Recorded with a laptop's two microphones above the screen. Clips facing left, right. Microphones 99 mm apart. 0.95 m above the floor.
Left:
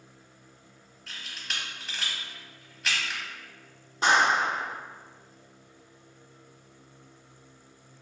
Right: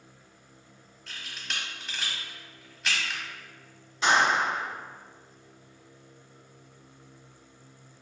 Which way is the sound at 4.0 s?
40° left (ahead or behind).